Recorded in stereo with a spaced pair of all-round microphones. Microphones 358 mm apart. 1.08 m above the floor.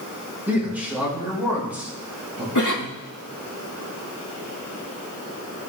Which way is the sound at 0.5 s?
5° right (ahead or behind).